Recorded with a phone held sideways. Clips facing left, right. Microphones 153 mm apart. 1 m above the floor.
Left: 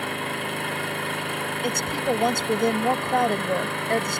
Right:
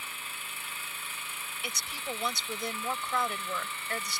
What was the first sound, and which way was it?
An engine running, 65° left (ahead or behind).